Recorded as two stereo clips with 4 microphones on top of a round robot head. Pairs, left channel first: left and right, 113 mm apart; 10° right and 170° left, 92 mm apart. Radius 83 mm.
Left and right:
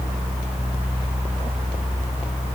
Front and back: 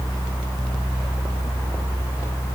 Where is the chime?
I don't hear a chime.